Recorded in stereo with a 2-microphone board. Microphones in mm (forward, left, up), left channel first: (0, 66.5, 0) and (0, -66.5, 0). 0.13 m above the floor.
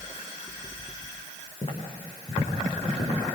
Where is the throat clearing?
I don't hear throat clearing.